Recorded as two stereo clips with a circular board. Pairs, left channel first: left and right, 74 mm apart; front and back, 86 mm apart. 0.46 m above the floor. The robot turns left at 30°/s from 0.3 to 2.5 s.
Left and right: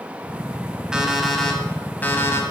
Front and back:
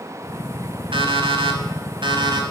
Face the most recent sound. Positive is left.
turn(degrees=140)